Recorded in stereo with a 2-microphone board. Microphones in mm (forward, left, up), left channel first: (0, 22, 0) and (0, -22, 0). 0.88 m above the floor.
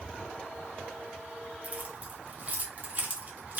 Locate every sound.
1.6 s keys jangling: 35° right (ahead or behind), 0.7 m